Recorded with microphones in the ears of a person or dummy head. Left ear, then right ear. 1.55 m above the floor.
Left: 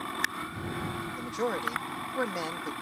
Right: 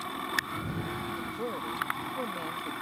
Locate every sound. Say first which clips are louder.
1.1 s a man speaking: left 3 dB; 65° left (ahead or behind)